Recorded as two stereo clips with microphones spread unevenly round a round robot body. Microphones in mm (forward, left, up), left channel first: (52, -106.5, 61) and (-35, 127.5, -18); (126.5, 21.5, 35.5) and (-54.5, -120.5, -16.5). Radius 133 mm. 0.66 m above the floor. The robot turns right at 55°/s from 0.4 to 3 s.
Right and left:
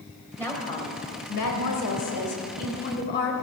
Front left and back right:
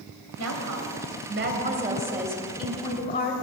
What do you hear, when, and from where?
0.4 s a woman speaking: 155° right, 3 m; by 3.4 s 15° right, 3 m